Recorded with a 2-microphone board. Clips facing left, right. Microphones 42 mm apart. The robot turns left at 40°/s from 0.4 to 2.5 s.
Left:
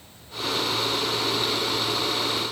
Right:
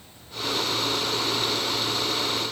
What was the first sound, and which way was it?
Only background noise.